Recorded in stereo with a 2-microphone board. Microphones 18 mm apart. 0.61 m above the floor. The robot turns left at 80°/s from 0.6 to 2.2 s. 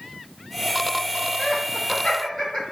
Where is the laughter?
45° left (ahead or behind), 1.3 m; by 2.6 s 55° left (ahead or behind), 1.3 m.